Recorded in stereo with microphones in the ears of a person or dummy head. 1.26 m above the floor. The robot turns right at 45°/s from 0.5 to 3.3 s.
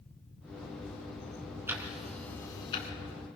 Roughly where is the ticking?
Centre.